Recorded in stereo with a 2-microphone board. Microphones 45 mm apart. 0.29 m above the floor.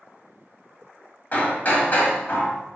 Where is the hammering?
40° left (ahead or behind), 1.0 m.